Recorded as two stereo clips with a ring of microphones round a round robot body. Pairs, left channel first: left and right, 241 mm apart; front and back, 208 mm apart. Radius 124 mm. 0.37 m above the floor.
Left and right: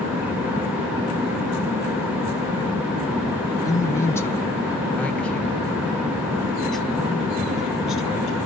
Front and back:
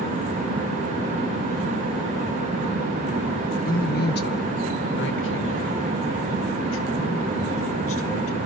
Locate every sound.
3.6 s a man speaking: 20° left, 1.4 m; by 8.4 s straight ahead, 4 m